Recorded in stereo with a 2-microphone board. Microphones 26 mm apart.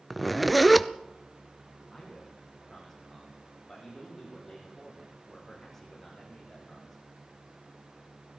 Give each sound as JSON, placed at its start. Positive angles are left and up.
{"t": 0.1, "sound": "a zipper", "side_deg": -5, "distance_m": 0.6}
{"t": 1.9, "sound": "a man speaking", "side_deg": 10, "distance_m": 10.0}